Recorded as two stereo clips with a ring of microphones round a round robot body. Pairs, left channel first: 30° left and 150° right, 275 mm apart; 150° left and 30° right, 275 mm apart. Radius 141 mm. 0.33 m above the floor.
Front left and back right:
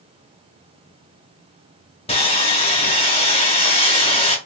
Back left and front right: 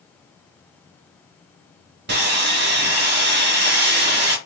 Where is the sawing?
25° right, 1.1 m.